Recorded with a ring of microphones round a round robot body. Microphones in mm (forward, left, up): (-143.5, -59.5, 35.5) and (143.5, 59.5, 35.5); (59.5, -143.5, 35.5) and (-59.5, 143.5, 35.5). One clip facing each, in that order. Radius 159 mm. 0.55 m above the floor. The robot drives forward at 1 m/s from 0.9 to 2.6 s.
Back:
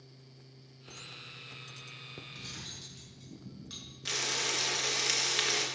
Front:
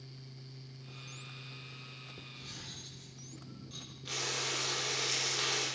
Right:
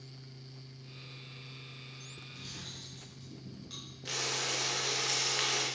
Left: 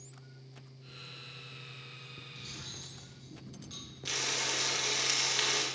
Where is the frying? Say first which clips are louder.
Back 2 dB, right 1 dB; 175° right, 3.5 m.